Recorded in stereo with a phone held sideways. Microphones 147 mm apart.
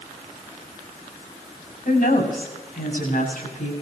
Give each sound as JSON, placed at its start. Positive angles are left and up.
{"t": 1.9, "sound": "a woman speaking", "side_deg": 80, "distance_m": 6.5}